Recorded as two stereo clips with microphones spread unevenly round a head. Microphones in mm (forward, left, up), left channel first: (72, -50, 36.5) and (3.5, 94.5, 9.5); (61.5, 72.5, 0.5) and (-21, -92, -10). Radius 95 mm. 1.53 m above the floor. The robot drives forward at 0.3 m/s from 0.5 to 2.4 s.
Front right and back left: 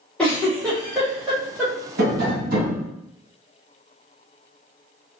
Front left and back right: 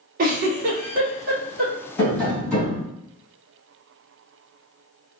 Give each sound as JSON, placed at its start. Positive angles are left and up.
{"t": 0.2, "sound": "a giggle", "azimuth_deg": -135, "distance_m": 0.7}
{"t": 2.0, "sound": "tapping", "azimuth_deg": 140, "distance_m": 1.7}